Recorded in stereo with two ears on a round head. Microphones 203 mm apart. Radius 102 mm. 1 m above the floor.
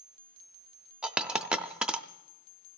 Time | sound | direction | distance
1.0 | a dropped coin | 5° right (ahead or behind) | 0.6 m